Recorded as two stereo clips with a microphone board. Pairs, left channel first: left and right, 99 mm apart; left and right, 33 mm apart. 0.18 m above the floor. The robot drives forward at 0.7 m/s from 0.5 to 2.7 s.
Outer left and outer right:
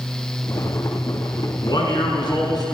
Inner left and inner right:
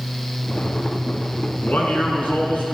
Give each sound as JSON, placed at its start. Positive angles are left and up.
{"t": 1.6, "sound": "a man speaking", "side_deg": 50, "distance_m": 1.5}